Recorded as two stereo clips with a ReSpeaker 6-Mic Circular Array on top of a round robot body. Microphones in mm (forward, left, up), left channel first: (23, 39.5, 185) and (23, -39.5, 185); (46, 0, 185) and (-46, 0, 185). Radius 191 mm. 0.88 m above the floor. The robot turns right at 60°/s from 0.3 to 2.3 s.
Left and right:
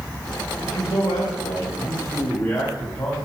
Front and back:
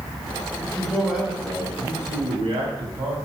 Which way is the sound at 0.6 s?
60° left.